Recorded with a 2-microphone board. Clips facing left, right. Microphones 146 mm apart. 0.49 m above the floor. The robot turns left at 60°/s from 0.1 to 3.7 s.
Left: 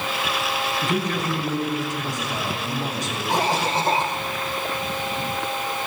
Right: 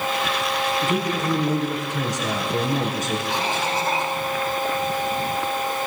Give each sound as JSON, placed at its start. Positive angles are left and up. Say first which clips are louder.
{"t": 0.8, "sound": "a man speaking", "louder": "right 1 dB", "azimuth_deg": 0, "distance_m": 6.0}
{"t": 3.3, "sound": "a cough", "louder": "left 2 dB", "side_deg": 45, "distance_m": 1.9}